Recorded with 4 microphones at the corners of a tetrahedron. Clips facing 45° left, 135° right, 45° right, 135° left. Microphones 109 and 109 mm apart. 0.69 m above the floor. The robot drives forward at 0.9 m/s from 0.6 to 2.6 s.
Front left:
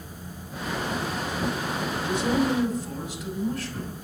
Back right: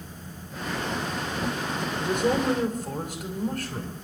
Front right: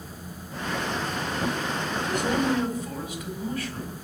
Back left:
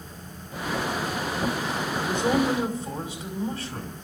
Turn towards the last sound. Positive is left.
turn(degrees=-165)